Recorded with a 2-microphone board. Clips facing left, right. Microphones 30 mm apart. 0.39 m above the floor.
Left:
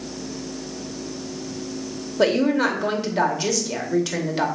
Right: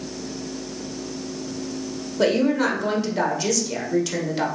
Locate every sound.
2.2 s a woman speaking: 10° left (ahead or behind), 0.9 m